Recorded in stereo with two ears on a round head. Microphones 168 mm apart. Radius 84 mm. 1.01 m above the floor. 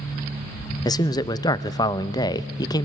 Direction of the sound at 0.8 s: 20° left (ahead or behind).